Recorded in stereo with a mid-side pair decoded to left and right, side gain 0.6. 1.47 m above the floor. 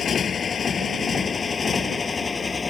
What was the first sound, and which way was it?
A motorcycle, 35° left.